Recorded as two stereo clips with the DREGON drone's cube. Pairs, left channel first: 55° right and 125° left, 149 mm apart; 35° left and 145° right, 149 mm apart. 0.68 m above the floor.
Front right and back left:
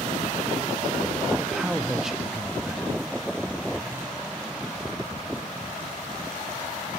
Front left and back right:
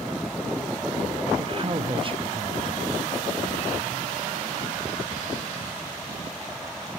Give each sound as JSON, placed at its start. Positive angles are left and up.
{"t": 1.4, "sound": "a man speaking", "azimuth_deg": -150, "distance_m": 0.7}